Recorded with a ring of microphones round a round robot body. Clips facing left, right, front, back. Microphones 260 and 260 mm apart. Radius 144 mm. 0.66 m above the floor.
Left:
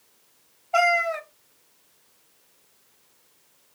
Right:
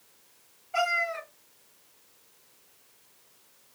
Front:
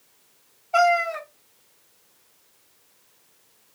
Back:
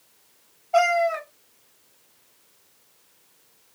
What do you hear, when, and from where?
0.7 s a cat meowing: 85° left, 1.2 m